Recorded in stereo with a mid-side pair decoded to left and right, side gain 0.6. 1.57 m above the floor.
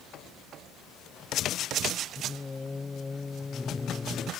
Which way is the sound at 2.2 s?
15° left.